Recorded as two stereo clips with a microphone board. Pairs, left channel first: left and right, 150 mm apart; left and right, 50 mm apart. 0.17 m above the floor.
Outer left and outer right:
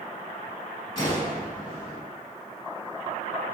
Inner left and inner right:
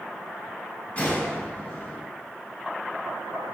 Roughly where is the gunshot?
Left.